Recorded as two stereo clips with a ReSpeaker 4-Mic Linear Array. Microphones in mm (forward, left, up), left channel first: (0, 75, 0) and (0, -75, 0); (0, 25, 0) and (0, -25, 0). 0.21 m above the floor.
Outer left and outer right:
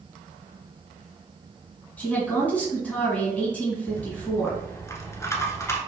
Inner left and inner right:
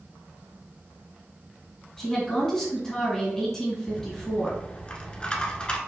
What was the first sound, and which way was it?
A woman speaking, 10° left (ahead or behind).